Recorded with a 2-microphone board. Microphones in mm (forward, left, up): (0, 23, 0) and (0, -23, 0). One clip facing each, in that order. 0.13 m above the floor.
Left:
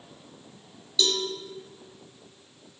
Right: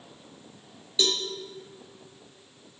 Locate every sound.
1.0 s a cowbell: 30° right (ahead or behind), 1.6 m